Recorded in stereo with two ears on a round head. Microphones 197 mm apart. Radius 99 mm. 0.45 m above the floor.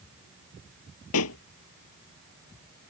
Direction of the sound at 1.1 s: 80° left.